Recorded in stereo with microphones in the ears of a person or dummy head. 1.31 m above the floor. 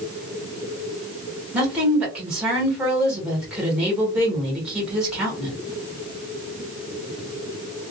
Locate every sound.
1.5 s a woman speaking: 5° right (ahead or behind), 1.8 m